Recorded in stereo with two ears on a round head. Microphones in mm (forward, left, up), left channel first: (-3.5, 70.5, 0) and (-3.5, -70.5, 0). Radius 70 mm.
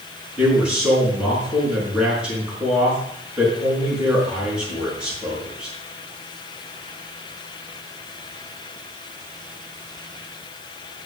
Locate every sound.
0.4 s a man speaking: 5° right (ahead or behind), 5.5 m